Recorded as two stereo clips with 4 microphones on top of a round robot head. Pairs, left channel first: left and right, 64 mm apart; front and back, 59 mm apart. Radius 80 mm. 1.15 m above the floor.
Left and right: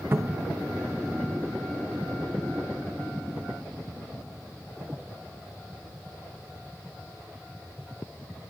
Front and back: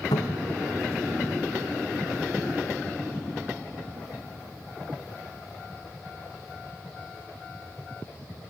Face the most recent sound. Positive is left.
turn(degrees=-30)